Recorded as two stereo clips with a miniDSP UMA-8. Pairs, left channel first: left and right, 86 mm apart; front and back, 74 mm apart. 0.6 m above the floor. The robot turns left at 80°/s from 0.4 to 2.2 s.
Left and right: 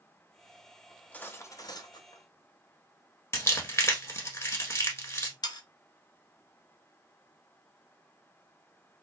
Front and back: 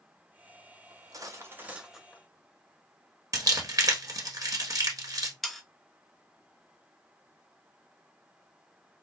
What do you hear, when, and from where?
0.9 s cutlery clinking: 175° left, 0.7 m; by 2.2 s 75° left, 0.7 m
3.3 s crumpling: 145° left, 1.3 m
5.4 s sawing: 90° left, 0.7 m